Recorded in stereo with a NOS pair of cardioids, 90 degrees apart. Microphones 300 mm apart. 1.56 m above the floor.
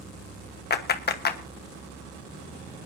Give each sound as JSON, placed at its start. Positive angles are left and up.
{"t": 0.7, "sound": "a clap", "azimuth_deg": 35, "distance_m": 1.2}